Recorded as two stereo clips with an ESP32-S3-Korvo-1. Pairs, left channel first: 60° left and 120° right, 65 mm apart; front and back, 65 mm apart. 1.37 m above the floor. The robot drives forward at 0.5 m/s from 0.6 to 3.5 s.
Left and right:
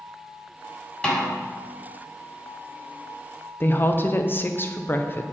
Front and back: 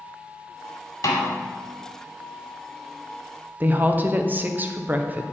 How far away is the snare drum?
About 1.7 m.